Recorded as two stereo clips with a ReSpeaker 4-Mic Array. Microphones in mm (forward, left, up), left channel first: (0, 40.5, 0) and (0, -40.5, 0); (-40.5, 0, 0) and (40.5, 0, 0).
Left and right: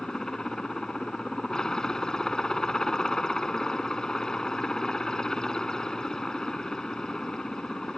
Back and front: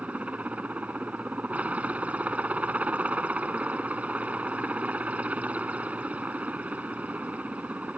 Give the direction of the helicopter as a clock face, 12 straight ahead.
11 o'clock.